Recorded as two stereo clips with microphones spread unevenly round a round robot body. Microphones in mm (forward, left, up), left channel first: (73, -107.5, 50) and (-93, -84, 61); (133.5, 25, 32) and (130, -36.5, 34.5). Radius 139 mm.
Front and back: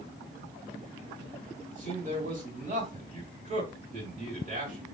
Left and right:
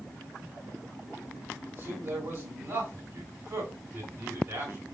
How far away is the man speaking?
About 2 m.